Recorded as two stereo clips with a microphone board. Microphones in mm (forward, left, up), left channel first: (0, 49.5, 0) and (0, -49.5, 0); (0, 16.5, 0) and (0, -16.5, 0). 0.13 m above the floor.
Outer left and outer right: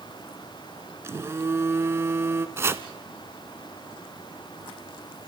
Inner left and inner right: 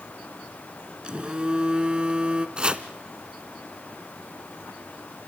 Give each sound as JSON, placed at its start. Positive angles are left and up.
{"t": 1.0, "sound": "a phone buzzing", "side_deg": -25, "distance_m": 1.2}
{"t": 2.6, "sound": "chopping", "side_deg": -25, "distance_m": 0.9}